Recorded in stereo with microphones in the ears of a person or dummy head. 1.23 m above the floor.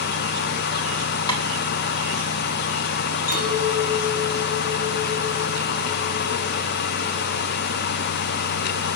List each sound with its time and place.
1.3 s tapping: 20° left (ahead or behind), 3.5 m
3.3 s a clink: 50° left (ahead or behind), 7 m